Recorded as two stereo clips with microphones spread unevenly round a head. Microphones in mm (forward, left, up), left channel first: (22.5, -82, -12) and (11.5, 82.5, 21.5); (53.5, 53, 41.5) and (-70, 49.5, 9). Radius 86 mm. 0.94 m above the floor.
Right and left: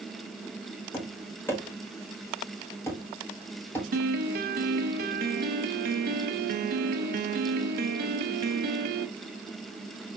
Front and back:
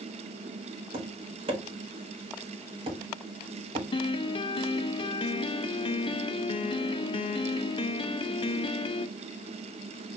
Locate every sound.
0.9 s tapping: 155° right, 1.3 m
3.9 s a piano: 55° left, 0.6 m